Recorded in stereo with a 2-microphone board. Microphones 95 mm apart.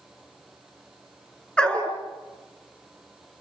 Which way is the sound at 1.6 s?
10° left (ahead or behind).